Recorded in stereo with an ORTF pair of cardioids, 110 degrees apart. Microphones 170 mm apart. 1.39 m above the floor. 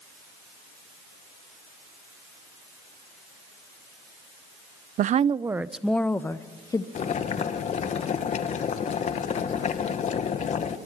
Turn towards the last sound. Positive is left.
turn(degrees=45)